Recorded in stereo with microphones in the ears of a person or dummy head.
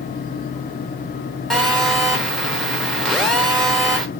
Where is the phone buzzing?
Centre (ahead or behind), 0.9 m.